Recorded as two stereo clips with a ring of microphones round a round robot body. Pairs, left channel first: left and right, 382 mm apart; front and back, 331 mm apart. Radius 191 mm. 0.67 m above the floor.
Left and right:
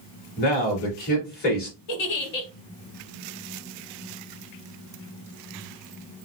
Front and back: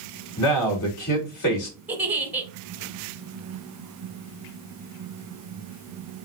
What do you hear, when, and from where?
0.4 s a man speaking: 25° left, 2.5 m
1.9 s a giggle: 95° left, 1.0 m